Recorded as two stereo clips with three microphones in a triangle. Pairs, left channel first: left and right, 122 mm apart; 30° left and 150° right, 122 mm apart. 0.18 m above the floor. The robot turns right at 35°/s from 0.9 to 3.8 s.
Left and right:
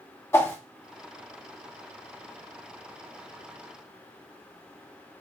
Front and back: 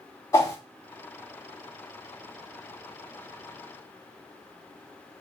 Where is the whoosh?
50° left, 0.9 m.